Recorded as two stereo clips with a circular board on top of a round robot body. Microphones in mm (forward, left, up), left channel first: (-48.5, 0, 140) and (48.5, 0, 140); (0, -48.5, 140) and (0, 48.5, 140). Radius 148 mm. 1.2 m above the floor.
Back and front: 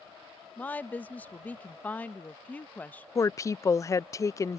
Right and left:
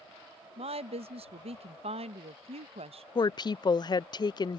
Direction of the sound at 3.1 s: 125° right.